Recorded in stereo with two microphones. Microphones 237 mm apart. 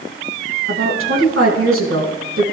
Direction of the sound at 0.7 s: 70° right (ahead or behind).